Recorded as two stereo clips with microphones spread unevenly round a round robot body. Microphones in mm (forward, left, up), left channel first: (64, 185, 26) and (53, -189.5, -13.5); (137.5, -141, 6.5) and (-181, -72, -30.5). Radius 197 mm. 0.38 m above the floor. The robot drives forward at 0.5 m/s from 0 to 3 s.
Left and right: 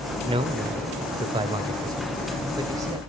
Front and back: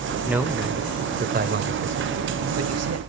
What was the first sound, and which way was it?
A man speaking, 120° right.